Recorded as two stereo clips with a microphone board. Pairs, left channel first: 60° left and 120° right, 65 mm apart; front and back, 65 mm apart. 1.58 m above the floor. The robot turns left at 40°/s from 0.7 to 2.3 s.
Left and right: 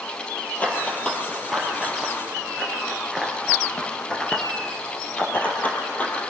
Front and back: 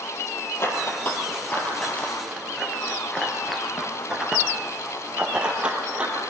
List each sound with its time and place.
0.6 s running footsteps: 10° left, 2 m; by 6.2 s 115° left, 2 m